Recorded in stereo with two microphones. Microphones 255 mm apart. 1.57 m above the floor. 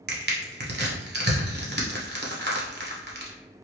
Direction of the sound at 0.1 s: 40° right (ahead or behind).